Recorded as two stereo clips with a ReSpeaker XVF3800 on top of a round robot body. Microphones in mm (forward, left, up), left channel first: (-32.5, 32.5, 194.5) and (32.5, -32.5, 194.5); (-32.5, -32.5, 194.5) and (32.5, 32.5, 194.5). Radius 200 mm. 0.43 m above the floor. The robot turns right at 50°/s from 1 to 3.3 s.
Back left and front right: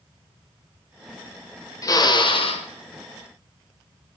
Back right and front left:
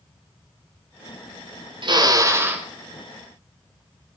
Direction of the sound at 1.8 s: 80° left.